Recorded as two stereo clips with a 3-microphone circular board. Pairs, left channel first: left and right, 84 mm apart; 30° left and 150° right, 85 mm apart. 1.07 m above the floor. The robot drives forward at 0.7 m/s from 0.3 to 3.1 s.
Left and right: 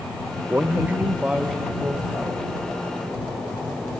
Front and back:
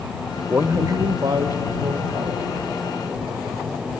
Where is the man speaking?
130° right, 0.7 m; by 2.4 s 170° right, 1.7 m.